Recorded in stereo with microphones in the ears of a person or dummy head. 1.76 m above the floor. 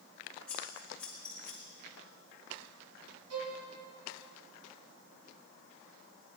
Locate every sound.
0.5 s scissors: 15° left (ahead or behind), 2.5 m
3.3 s a violin: 80° right, 2 m